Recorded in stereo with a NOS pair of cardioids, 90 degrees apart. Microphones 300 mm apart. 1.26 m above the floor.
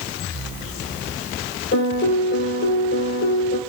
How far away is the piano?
About 6.5 m.